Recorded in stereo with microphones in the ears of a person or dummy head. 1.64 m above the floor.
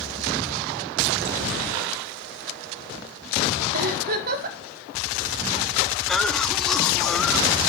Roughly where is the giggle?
Right.